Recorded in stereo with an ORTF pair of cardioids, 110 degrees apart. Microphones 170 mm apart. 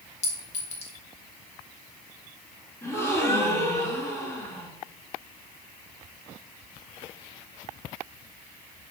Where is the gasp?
15° left, 2 m.